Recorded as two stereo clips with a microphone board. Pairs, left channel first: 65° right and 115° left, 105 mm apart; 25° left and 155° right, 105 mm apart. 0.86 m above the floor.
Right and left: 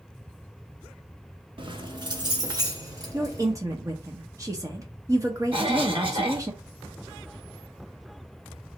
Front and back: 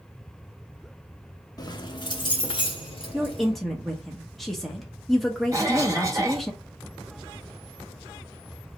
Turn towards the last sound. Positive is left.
turn(degrees=145)